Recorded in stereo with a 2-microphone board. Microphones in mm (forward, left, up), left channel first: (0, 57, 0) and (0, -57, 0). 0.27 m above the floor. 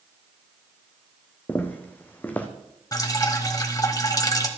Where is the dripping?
35° left (ahead or behind), 1.1 m.